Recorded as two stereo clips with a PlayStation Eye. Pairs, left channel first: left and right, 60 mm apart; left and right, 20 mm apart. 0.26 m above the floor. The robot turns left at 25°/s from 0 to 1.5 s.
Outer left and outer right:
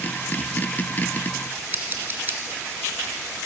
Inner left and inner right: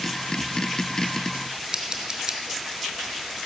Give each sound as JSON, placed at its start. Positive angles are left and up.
{"t": 1.7, "sound": "scissors", "side_deg": -40, "distance_m": 1.2}